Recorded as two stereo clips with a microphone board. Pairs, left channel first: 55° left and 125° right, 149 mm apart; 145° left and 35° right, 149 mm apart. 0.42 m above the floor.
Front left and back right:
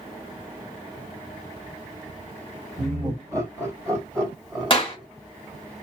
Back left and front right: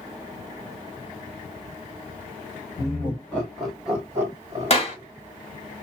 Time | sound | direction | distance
2.8 | laughter | 165° right | 1.6 m
4.7 | a clap | 105° left | 1.4 m